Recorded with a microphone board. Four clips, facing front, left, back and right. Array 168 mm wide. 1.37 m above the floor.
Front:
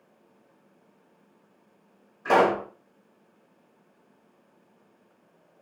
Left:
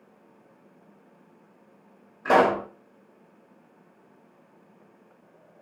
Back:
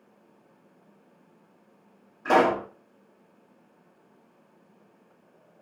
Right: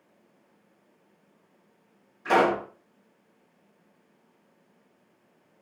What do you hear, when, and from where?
2.2 s a pop: 105° left, 1.0 m